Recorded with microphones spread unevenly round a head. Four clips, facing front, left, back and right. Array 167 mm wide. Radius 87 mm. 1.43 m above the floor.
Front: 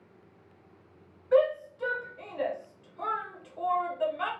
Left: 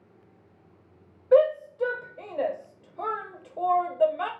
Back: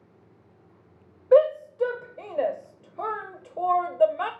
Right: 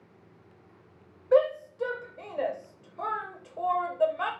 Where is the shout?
160° left, 0.7 m.